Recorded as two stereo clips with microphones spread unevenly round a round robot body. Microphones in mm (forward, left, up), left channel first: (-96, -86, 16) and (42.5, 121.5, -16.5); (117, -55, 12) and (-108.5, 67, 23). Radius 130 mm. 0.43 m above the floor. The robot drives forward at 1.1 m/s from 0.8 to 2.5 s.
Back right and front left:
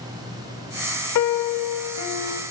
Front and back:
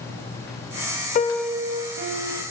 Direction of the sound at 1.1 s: 85° right.